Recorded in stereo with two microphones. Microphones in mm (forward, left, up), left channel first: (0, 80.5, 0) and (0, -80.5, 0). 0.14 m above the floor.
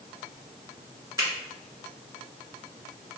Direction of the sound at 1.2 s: 25° right (ahead or behind).